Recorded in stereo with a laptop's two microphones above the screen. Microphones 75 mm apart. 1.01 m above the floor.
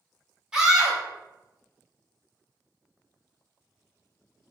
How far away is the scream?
About 1.3 m.